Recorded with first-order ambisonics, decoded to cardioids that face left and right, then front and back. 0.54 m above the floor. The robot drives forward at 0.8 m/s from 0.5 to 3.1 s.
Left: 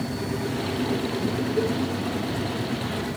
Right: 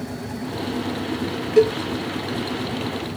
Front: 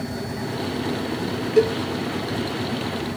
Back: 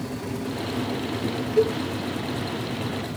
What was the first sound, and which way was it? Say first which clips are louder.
A cowbell: right 11 dB, front 3 dB; 55° right.